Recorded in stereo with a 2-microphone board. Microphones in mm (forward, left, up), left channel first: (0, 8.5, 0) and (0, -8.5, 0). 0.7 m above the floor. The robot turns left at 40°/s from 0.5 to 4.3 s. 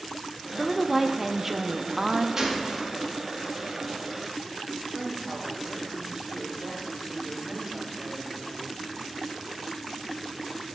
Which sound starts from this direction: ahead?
A woman speaking, at 0.6 s.